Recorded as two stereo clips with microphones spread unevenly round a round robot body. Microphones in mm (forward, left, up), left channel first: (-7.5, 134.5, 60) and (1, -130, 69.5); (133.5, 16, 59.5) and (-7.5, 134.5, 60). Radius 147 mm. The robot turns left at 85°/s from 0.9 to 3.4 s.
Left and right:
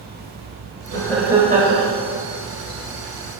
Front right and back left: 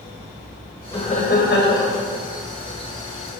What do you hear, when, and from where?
0.9 s laughter: 25° left, 3 m; by 1.9 s 55° right, 3 m